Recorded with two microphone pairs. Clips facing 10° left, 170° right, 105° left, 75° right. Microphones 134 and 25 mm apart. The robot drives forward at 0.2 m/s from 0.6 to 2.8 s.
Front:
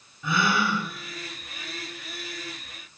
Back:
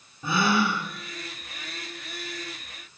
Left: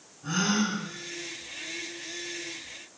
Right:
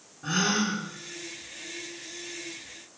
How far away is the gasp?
About 3.5 m.